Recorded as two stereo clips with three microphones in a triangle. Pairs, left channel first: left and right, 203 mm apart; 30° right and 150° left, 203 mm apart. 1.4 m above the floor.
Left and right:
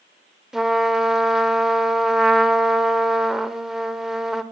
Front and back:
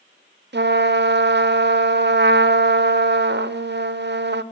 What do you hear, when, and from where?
0.5 s a trumpet: 175° right, 0.6 m